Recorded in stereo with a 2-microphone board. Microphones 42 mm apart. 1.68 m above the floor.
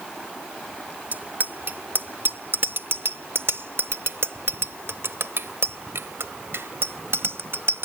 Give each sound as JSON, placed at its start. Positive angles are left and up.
{"t": 1.1, "sound": "a bicycle bell", "side_deg": -50}